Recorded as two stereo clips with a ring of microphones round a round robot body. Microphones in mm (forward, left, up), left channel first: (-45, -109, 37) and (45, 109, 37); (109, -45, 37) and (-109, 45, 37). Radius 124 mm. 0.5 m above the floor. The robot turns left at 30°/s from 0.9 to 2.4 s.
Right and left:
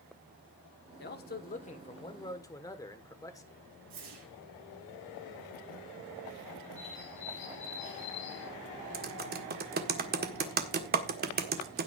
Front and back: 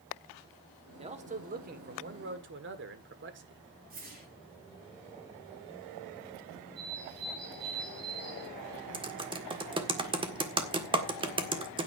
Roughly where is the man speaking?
Behind right.